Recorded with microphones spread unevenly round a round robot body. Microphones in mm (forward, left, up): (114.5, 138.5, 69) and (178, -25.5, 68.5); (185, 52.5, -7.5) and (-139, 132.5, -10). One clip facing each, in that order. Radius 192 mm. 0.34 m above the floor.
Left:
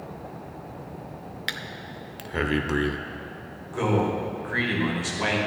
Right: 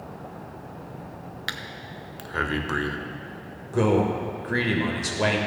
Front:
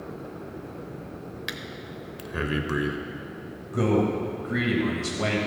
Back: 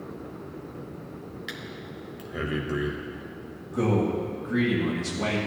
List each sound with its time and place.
1.5 s breathing: 45° left, 0.9 m
3.7 s a man speaking: 90° right, 1.5 m